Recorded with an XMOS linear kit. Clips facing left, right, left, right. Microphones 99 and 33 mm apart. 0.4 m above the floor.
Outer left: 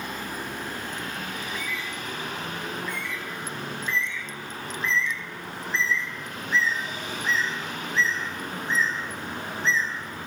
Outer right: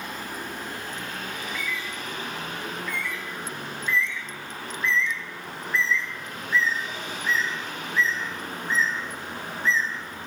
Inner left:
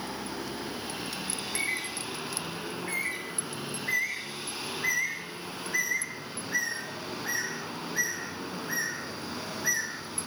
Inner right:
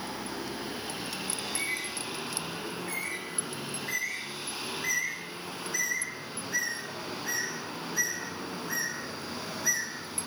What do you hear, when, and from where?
1.4 s a bird: 30° left (ahead or behind), 2.0 m